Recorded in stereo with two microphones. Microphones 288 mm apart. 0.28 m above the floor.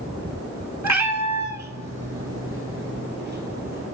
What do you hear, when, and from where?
0.8 s a cat meowing: 70° right (ahead or behind), 1.1 m; by 3.9 s 30° right (ahead or behind), 2.5 m